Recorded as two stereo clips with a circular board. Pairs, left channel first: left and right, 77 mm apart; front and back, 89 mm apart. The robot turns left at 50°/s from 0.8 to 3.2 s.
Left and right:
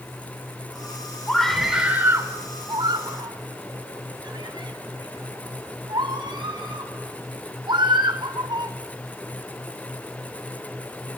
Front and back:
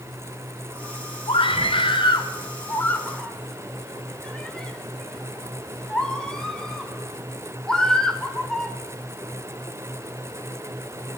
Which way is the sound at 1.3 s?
15° left.